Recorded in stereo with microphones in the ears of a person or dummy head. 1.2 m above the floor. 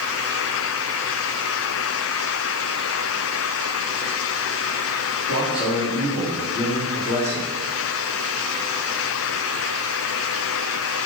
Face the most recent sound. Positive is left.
turn(degrees=35)  # may be behind; listen again after turning